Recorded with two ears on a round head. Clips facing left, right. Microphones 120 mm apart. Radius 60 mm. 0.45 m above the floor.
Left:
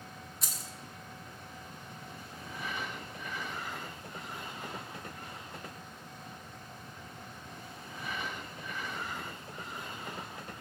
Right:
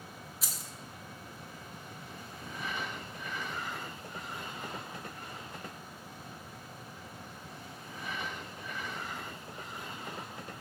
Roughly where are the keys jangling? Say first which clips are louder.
Left 1 dB; centre.